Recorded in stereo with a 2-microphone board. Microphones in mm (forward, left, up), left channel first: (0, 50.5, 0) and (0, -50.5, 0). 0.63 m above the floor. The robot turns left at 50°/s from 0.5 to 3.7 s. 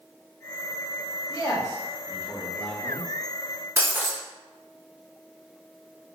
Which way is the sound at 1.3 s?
40° left (ahead or behind).